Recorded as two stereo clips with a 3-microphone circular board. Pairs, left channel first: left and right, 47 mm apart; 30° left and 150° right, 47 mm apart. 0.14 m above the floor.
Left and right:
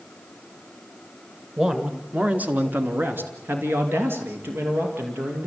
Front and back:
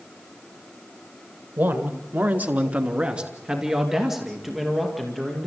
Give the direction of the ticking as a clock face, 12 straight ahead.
I don't hear ticking.